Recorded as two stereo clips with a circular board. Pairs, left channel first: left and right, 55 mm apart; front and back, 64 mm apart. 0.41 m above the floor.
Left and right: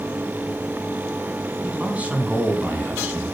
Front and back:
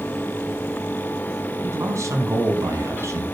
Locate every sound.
1.6 s a man speaking: 155° right, 4 m